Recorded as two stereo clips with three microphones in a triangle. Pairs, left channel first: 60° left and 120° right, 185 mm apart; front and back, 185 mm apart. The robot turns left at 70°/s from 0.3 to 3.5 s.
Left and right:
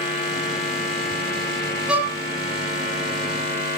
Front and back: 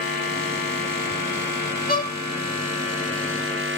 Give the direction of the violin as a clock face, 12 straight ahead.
1 o'clock.